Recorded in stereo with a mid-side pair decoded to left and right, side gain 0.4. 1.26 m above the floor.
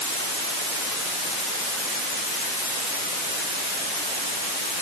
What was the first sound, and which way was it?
Only background noise.